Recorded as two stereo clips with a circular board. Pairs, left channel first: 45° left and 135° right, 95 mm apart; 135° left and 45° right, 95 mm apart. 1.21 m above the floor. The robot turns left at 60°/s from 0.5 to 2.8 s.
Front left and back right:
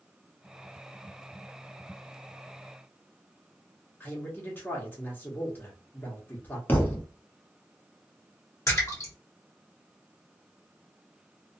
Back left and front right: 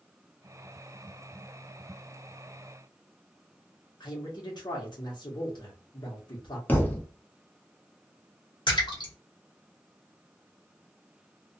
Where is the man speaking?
110° left, 1.1 m.